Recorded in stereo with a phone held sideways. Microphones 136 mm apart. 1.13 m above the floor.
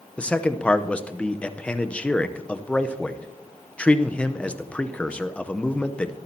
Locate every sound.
0.2 s a man speaking: 10° left (ahead or behind), 0.7 m